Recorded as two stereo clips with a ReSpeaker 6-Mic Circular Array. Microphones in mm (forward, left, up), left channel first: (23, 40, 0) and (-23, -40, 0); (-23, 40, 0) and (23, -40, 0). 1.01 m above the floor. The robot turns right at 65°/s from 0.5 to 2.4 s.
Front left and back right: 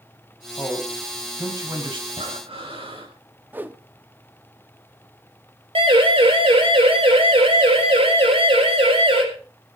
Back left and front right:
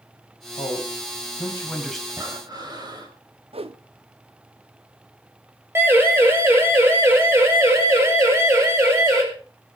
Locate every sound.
0.6 s a man speaking: 120° left, 5 m; by 2.0 s 150° right, 5 m
2.1 s breathing: 125° right, 5 m; by 3.1 s 105° right, 5 m
3.5 s a whoosh: 50° right, 1.1 m
5.8 s a siren: 125° right, 6 m; by 9.2 s 120° right, 8 m